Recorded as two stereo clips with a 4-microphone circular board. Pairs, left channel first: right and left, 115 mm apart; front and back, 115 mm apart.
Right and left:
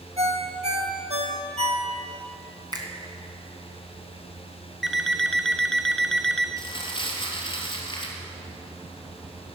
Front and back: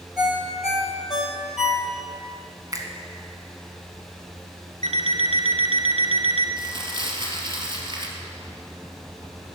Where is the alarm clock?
Straight behind, 1.3 m.